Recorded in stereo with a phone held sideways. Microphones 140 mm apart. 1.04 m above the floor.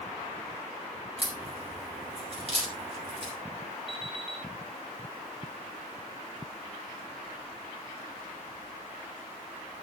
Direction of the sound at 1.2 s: 45° right (ahead or behind).